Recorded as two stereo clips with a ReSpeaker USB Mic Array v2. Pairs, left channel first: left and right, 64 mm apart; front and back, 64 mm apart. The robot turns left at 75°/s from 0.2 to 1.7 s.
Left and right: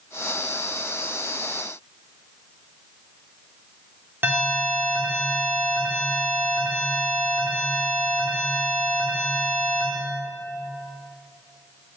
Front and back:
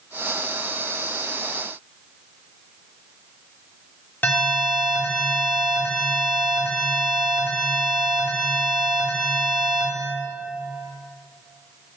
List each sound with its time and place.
4.2 s an alarm: 45° right, 2.5 m